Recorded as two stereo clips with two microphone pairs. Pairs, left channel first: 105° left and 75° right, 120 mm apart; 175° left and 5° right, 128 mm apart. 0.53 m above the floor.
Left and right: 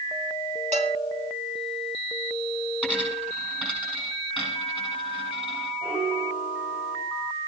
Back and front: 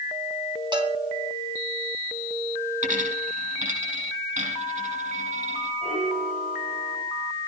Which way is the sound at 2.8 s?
5° left.